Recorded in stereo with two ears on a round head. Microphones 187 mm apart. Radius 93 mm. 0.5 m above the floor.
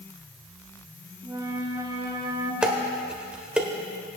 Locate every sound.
1.2 s a flute: 15° right (ahead or behind), 1.0 m
2.6 s dishes clattering: 5° right (ahead or behind), 1.2 m